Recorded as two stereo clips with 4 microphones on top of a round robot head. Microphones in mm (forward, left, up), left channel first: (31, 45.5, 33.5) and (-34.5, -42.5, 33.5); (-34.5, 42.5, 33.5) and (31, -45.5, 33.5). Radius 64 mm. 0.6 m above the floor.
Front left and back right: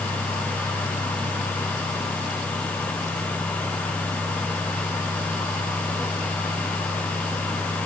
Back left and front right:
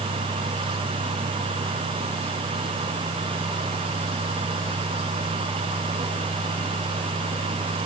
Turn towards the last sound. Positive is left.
No sound to turn to.